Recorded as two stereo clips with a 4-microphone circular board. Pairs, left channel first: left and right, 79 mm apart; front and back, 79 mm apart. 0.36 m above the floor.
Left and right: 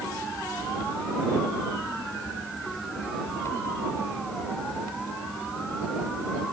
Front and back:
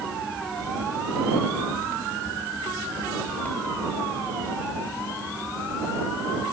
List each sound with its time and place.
Only background noise.